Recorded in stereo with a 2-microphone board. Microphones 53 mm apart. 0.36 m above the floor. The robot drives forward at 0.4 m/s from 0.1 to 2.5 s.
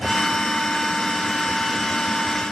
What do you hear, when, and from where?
Only background noise.